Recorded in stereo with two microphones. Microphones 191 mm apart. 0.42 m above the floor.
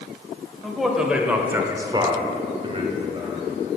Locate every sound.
0.6 s a man speaking: centre (ahead or behind), 2.5 m; by 3.5 s 25° right (ahead or behind), 2.5 m